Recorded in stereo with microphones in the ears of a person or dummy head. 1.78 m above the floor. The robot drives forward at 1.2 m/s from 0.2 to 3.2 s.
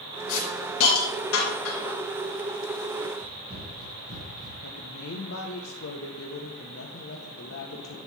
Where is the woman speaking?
80° left, 1.7 m.